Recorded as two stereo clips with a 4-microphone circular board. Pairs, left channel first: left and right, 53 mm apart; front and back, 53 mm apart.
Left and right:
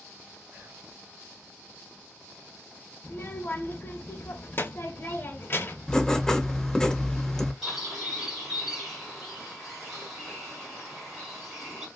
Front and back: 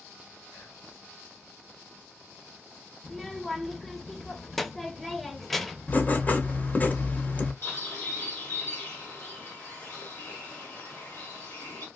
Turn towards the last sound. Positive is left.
turn(degrees=-5)